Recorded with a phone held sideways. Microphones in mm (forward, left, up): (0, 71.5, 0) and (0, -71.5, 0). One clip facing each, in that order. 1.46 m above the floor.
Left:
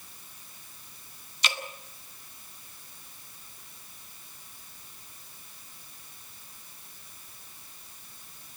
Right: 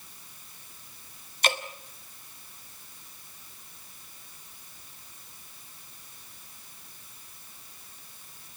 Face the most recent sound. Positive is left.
turn(degrees=-55)  # may be behind; listen again after turning